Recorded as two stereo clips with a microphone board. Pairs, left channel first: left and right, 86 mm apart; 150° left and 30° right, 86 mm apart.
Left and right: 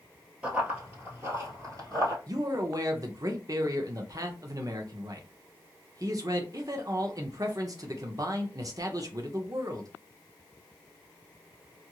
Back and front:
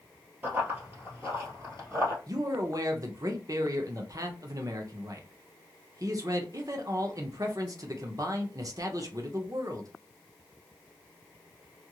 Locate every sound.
0.4 s running footsteps: 35° right, 1.4 m; by 2.2 s 75° right, 1.8 m
2.3 s a man speaking: 60° right, 0.7 m